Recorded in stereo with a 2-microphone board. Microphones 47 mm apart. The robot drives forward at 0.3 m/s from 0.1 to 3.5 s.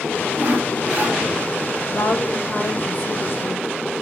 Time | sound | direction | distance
0.4 | sawing | 40° right (ahead or behind) | 1.3 m
1.9 | a woman speaking | 70° left (ahead or behind) | 1.6 m